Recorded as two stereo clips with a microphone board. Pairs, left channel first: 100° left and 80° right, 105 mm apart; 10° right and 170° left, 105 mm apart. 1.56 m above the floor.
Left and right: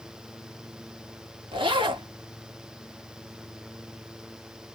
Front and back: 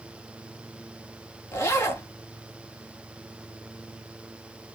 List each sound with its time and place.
1.5 s a zipper: 70° right, 1.3 m